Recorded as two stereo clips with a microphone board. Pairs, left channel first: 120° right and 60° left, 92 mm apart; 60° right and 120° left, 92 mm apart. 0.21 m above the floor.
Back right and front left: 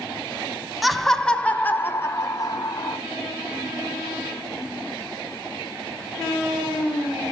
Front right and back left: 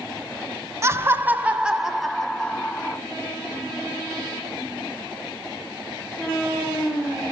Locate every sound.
0.8 s laughter: 150° left, 1.6 m; by 3.0 s 125° right, 1.9 m